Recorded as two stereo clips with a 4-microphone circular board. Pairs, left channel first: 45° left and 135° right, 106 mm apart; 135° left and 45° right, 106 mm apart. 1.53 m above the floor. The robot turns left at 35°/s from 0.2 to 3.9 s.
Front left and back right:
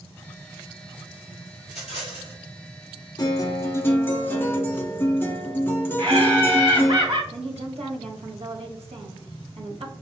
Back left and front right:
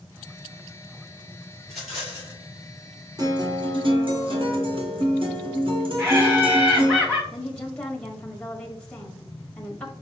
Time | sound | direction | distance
1.6 | a rattle | 50° left | 2.5 m
3.2 | a guitar | 5° left | 1.0 m
6.0 | laughter | 120° right | 1.2 m
7.3 | a woman speaking | 140° right | 1.1 m